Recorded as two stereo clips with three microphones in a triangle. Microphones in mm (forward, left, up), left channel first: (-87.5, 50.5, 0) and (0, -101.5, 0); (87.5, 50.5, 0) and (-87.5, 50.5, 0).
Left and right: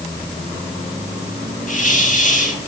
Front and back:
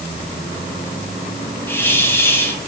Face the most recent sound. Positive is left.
turn(degrees=75)